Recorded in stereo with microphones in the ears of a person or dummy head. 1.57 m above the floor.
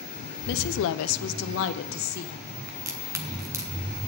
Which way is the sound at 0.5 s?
60° left (ahead or behind).